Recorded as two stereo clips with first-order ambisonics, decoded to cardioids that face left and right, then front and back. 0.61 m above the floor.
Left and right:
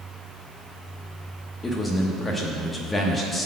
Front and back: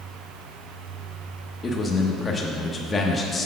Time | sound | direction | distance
1.6 | a man speaking | 50° left | 0.8 m